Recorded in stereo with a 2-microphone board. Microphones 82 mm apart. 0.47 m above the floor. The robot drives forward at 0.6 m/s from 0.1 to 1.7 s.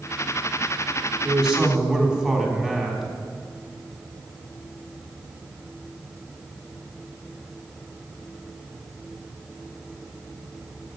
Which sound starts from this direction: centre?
A man speaking, at 1.2 s.